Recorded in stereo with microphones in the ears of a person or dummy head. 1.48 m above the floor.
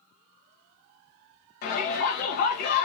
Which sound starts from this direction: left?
A shout, at 1.6 s.